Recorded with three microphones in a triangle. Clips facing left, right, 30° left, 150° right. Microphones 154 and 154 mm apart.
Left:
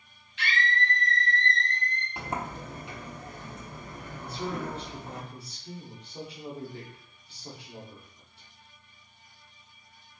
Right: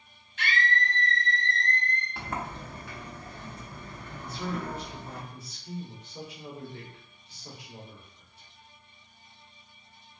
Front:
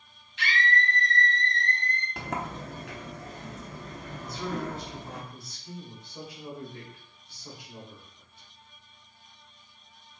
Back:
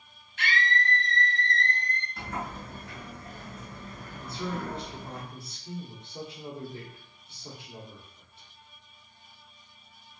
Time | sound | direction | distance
0.4 | a scream | 120° right | 1.0 m
2.2 | a sliding door | 20° left | 0.6 m
4.2 | a man speaking | 150° left | 1.4 m